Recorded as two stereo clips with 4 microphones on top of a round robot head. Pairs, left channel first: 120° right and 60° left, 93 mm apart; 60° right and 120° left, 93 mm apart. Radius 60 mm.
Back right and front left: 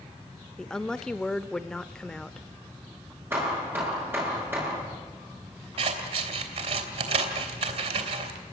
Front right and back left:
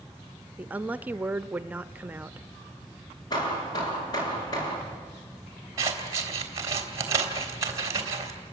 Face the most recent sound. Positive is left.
turn(degrees=65)